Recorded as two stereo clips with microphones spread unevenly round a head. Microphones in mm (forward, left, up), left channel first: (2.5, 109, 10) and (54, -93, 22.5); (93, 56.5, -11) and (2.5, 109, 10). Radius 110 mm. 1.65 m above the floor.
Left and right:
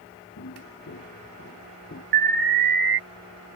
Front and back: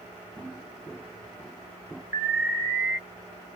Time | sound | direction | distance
0.4 | footsteps | 65° left | ?
2.1 | an alarm | 125° right | ?